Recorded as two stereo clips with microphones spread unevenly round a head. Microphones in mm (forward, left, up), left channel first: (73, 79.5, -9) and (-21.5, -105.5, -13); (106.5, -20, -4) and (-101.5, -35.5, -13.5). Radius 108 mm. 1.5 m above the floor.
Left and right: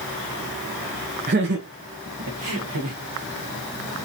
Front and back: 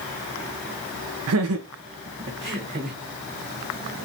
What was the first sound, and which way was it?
Laughter, 175° right.